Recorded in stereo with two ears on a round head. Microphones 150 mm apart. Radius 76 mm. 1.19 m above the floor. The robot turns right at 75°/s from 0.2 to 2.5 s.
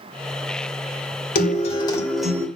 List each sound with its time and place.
1.4 s a guitar: 115° left, 2.5 m; by 2.5 s 160° right, 2.5 m